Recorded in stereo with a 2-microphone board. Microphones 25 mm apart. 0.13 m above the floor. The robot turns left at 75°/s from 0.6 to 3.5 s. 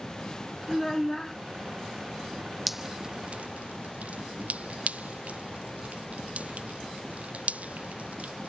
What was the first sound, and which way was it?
A child speaking, 10° left (ahead or behind).